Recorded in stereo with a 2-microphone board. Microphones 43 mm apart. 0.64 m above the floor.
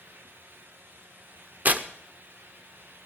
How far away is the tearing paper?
About 0.9 m.